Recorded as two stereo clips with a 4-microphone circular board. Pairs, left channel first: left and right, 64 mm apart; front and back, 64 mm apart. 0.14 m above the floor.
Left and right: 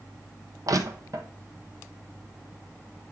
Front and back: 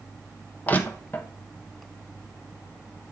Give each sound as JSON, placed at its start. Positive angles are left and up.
{"t": 0.7, "sound": "crushing", "azimuth_deg": -65, "distance_m": 0.9}